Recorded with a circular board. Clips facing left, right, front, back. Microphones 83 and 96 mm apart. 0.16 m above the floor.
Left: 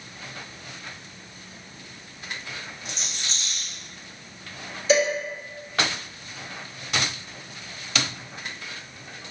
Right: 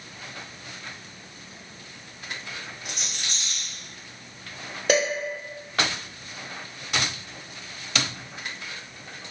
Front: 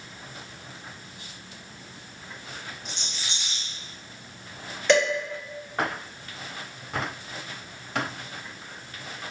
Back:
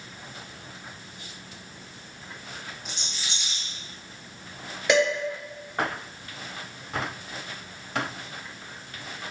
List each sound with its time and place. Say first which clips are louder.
2.9 s a rattle: even, even; 90° right, 0.9 m
4.9 s dishes clattering: left 2 dB, front 1 dB; 95° right, 1.7 m